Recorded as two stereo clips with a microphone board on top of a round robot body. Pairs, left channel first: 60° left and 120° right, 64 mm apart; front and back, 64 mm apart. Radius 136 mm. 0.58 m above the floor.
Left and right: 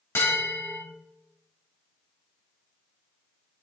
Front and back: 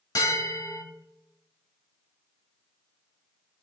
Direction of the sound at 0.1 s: 10° left.